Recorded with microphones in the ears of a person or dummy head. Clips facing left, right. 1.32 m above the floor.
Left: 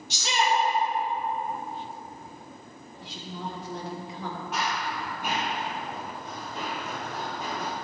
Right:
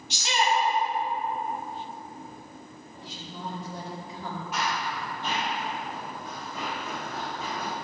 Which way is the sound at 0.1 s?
85° left.